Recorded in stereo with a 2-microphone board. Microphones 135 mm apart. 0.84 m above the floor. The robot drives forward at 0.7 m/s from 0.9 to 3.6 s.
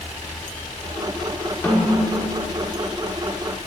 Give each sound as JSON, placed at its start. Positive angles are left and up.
{"t": 1.6, "sound": "a snare drum", "side_deg": 10, "distance_m": 1.2}